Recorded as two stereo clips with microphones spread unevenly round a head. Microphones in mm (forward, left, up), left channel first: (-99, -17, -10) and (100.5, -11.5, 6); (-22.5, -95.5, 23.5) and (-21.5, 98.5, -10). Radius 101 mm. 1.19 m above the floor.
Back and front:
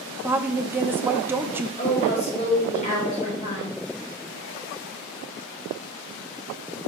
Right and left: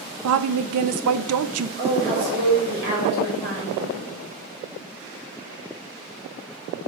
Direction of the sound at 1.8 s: 125° left.